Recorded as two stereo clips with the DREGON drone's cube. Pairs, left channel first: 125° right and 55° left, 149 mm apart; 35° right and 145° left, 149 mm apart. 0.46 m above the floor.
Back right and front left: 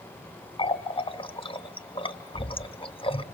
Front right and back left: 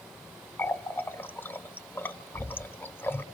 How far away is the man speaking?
I don't hear a man speaking.